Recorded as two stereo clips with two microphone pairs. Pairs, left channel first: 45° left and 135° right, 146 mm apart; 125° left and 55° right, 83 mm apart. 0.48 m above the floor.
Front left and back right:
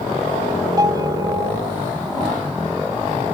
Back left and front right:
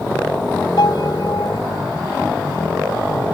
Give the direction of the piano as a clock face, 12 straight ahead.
7 o'clock.